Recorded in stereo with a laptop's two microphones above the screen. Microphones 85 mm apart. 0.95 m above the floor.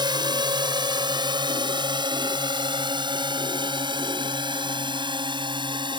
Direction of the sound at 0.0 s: 60° right (ahead or behind).